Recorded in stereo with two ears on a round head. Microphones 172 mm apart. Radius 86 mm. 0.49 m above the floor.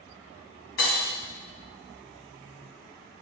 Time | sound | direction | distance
0.8 | breaking glass | 75° left (ahead or behind) | 1.8 m